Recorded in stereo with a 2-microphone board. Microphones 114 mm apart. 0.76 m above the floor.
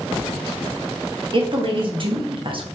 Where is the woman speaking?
45° right (ahead or behind), 0.7 m.